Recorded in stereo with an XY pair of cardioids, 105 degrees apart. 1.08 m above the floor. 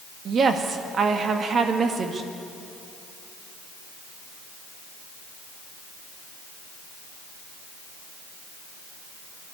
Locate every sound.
0.2 s a woman speaking: 50° right, 1.9 m